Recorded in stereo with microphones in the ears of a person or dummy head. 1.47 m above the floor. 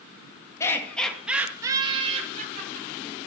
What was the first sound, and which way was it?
Laughter, 25° left (ahead or behind).